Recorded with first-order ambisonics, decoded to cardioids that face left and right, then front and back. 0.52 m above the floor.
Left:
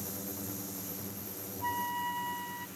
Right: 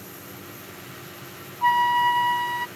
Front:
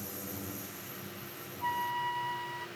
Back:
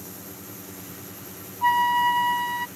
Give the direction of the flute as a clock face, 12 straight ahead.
4 o'clock.